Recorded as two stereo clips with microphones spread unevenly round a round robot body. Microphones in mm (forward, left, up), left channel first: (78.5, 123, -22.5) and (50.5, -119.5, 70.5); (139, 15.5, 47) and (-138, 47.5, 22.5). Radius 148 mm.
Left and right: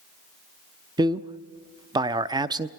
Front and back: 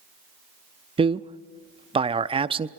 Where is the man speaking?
160° left, 0.6 m.